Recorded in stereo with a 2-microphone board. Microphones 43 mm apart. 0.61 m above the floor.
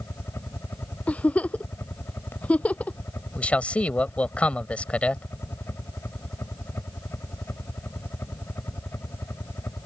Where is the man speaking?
30° left (ahead or behind).